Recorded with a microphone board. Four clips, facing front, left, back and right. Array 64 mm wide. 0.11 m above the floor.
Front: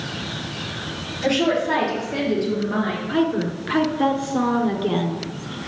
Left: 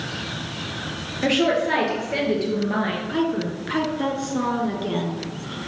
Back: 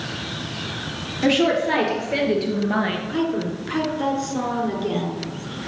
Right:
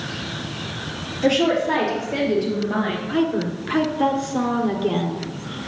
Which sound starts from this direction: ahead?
A woman speaking, at 3.1 s.